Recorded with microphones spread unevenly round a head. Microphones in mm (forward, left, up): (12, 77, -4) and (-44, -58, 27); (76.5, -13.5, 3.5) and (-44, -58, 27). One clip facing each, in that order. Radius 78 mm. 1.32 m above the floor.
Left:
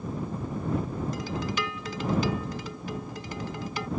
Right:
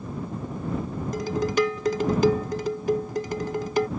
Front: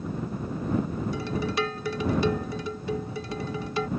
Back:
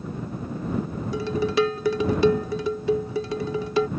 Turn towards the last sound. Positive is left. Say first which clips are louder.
# right 8 dB, back 9 dB
turn(degrees=-155)